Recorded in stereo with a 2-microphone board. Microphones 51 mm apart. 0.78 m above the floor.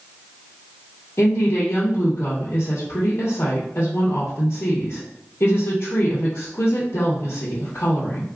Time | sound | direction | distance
1.2 | a woman speaking | 60° left (ahead or behind) | 0.9 m